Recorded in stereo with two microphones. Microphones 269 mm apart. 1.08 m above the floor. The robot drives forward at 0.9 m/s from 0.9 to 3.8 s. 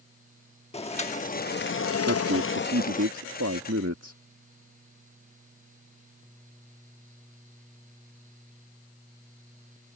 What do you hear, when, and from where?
0.7 s boiling: 25° left (ahead or behind); by 3.0 s 30° left (ahead or behind)
2.0 s a man speaking: 55° right (ahead or behind); by 4.2 s 70° right (ahead or behind)